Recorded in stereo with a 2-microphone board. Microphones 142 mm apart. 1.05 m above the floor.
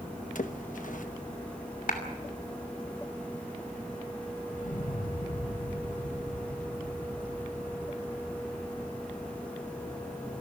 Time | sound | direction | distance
0.3 | a splash | 65° left (ahead or behind) | 1.1 m
1.9 | a clap | 75° left (ahead or behind) | 3 m
4.5 | an explosion | 70° left (ahead or behind) | 1.8 m